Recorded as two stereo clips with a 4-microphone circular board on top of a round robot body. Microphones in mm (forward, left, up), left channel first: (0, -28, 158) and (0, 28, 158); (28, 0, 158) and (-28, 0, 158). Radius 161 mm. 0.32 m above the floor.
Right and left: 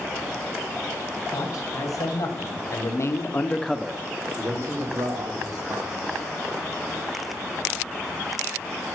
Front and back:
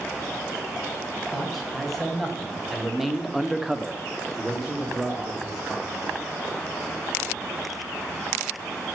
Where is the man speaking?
90° right, 3.5 m; by 6.1 s 95° left, 3.5 m.